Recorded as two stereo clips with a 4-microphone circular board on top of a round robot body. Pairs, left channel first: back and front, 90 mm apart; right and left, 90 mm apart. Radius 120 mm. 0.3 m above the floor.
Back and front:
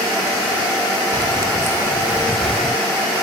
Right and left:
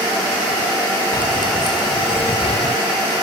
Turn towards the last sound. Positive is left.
turn(degrees=-100)